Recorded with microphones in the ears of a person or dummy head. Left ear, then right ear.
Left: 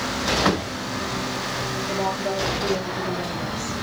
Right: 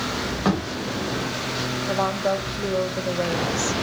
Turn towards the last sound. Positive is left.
turn(degrees=-75)  # may be behind; listen again after turning